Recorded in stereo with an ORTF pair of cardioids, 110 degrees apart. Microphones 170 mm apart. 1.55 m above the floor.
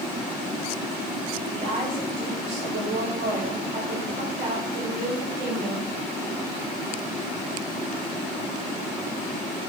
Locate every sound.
1.5 s a woman speaking: 55° right, 2.5 m